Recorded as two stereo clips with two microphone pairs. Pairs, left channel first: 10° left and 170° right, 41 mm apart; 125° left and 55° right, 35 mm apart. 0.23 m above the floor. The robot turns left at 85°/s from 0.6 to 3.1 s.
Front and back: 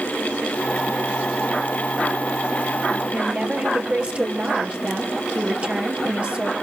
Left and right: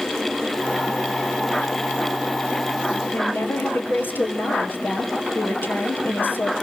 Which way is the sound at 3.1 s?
130° left.